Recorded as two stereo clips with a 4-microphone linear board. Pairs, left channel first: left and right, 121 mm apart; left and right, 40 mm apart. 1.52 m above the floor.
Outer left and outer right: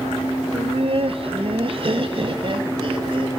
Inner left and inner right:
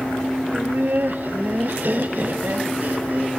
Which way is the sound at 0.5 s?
55° right (ahead or behind).